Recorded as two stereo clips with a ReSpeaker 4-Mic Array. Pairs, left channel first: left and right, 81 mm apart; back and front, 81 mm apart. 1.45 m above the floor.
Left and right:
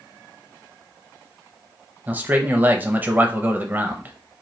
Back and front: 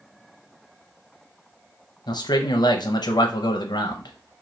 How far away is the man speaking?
About 0.5 m.